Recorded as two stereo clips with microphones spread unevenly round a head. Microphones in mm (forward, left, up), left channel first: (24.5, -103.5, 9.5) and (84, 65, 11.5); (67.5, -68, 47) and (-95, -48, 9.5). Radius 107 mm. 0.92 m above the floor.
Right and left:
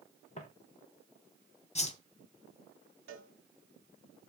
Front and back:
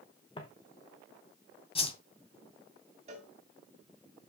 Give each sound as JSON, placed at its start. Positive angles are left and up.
{"t": 0.4, "sound": "footsteps", "azimuth_deg": -60, "distance_m": 3.0}
{"t": 1.8, "sound": "a whoosh", "azimuth_deg": -60, "distance_m": 2.0}
{"t": 3.1, "sound": "a cowbell", "azimuth_deg": 110, "distance_m": 2.5}